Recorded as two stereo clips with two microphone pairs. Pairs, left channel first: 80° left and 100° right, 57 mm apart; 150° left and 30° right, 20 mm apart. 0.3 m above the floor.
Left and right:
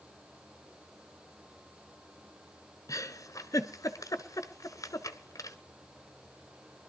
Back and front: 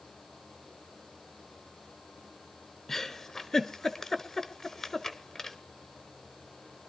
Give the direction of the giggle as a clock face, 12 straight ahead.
9 o'clock.